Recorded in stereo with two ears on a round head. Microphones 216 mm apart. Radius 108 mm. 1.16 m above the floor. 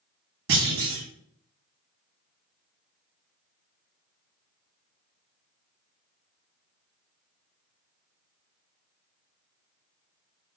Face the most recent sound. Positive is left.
turn(degrees=-55)  # may be behind; listen again after turning